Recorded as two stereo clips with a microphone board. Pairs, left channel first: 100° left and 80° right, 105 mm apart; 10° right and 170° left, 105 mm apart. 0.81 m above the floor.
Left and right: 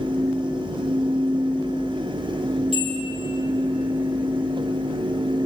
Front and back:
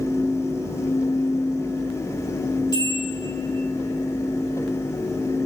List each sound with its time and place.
2.7 s a bell: 60° right, 5 m